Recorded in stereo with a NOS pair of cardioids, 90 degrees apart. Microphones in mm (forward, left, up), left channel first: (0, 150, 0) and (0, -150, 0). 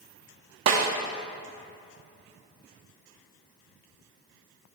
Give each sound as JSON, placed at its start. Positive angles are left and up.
{"t": 0.7, "sound": "a snare drum", "azimuth_deg": -60, "distance_m": 1.0}